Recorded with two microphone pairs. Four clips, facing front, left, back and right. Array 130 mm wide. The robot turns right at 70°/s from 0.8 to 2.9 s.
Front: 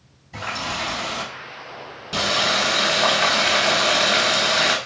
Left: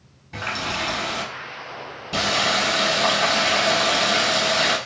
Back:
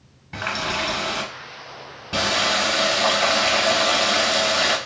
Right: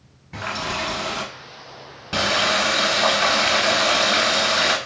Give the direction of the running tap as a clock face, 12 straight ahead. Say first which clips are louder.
Right 1 dB, back 2 dB; 6 o'clock.